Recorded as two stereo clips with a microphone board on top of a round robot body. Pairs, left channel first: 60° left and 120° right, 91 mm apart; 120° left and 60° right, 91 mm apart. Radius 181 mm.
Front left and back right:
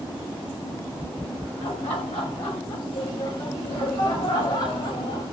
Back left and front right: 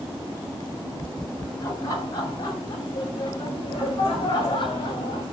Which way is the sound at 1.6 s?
65° left.